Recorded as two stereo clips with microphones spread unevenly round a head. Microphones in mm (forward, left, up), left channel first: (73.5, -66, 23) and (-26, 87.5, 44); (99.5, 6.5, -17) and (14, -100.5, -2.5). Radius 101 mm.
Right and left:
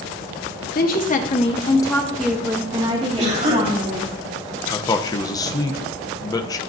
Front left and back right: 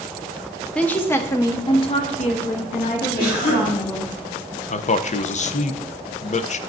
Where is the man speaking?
15° left, 0.6 m.